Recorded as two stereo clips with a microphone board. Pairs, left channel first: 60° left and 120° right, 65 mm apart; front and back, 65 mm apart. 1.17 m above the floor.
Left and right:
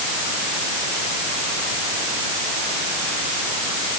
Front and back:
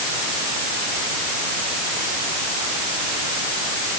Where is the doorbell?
I don't hear a doorbell.